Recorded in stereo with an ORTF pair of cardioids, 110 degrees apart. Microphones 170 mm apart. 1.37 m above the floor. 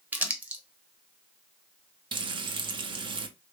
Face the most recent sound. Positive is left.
turn(degrees=-30)